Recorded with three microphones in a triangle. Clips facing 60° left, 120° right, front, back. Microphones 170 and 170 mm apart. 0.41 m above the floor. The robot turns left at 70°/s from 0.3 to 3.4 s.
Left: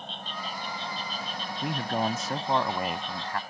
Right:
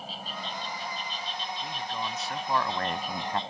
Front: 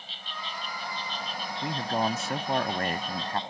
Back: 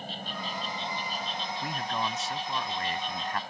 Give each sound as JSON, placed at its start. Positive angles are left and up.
{"t": 0.0, "sound": "an insect", "azimuth_deg": 155}
{"t": 1.6, "sound": "a man speaking", "azimuth_deg": 65}